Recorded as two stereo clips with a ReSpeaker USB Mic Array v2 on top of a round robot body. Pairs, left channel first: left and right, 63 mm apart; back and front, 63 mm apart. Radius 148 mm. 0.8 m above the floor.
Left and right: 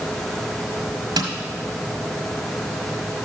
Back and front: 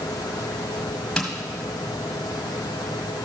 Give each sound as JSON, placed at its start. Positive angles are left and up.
{"t": 1.2, "sound": "tapping", "azimuth_deg": -95, "distance_m": 1.6}